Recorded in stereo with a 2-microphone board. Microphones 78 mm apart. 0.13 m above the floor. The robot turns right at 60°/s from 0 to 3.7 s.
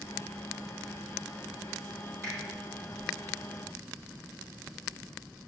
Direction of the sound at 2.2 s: 35° left (ahead or behind).